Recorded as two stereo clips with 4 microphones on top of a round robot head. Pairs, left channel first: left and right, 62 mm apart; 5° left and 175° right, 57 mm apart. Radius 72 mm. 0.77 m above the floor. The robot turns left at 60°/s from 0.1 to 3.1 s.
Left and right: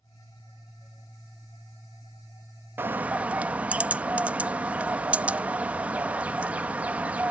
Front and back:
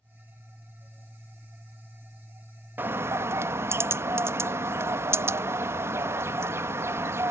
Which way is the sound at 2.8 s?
135° right.